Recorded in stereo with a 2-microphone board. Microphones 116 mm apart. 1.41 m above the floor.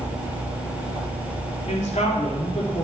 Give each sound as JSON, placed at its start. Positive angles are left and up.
{"t": 1.7, "sound": "a man speaking", "side_deg": 85, "distance_m": 3.5}